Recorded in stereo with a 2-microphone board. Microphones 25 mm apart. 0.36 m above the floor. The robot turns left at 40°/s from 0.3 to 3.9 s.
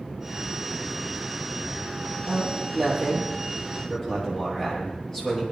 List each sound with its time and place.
2.3 s a man speaking: 135° right, 10 m; by 5.4 s 160° left, 10 m